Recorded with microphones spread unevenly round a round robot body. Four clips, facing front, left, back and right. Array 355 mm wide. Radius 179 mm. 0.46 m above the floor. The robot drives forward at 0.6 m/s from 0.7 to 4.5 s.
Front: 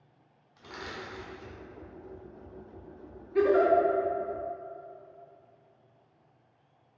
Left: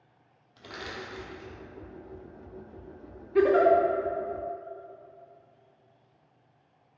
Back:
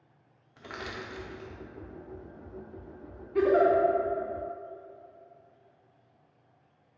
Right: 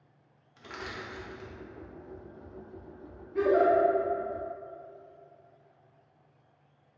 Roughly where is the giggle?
Left.